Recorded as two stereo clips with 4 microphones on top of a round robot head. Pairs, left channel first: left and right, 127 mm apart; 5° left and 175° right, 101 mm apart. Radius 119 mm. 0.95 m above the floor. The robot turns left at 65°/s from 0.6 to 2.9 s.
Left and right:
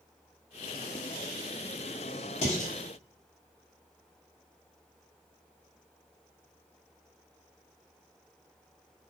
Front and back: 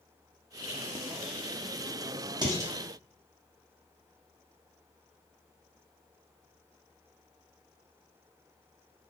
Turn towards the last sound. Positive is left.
turn(degrees=105)